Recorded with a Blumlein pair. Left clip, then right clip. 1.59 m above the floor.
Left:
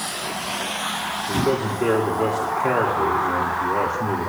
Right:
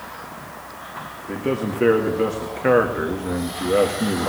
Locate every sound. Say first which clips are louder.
1.3 s a man speaking: left 1 dB; 60° right, 2 m